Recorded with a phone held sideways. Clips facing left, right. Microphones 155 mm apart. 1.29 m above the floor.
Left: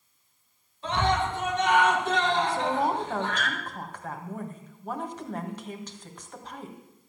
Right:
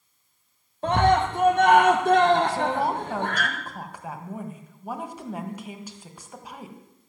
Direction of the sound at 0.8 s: 55° right (ahead or behind).